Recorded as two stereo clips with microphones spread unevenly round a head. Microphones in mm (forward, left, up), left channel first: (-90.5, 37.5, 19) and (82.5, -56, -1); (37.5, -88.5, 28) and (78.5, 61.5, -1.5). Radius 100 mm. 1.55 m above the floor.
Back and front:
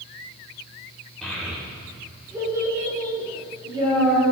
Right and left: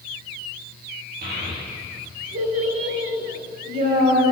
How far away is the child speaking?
About 2.5 m.